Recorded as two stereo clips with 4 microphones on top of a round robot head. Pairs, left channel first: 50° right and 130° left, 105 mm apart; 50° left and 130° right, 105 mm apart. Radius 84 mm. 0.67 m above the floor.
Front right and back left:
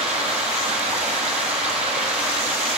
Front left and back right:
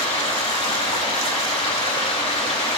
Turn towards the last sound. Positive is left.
turn(degrees=95)